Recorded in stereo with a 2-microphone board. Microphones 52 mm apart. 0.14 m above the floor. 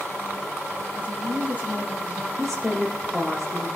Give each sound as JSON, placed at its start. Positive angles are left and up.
{"t": 0.9, "sound": "a woman speaking", "side_deg": -30, "distance_m": 3.5}
{"t": 2.4, "sound": "a woman speaking", "side_deg": -5, "distance_m": 2.5}